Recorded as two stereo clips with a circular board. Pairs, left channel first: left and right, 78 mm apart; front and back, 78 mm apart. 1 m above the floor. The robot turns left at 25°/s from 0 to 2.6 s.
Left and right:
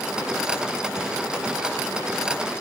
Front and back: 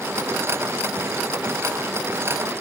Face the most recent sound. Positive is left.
No sound to turn to.